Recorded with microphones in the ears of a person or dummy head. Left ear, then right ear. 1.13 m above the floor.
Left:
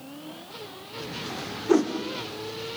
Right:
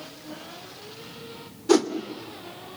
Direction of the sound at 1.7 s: 80° right.